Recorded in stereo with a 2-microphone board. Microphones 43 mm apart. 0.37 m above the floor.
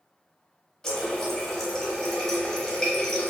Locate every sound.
0.8 s a running tap: 15° left (ahead or behind), 0.9 m